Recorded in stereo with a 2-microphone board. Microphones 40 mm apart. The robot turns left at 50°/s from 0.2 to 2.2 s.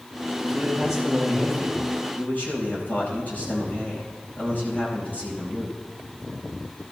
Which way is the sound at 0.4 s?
145° right.